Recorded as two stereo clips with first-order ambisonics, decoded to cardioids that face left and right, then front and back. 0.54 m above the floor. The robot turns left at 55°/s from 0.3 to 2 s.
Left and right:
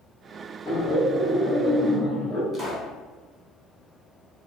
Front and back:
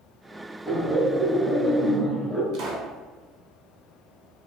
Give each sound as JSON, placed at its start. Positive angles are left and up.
{"t": 0.7, "sound": "laughter", "azimuth_deg": 70, "distance_m": 0.9}
{"t": 2.5, "sound": "a pop", "azimuth_deg": -155, "distance_m": 0.6}